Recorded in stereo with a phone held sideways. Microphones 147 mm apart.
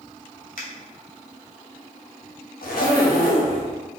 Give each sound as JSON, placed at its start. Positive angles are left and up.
{"t": 0.6, "sound": "a finger snap", "side_deg": 70, "distance_m": 0.8}
{"t": 2.6, "sound": "a zipper", "side_deg": 80, "distance_m": 0.7}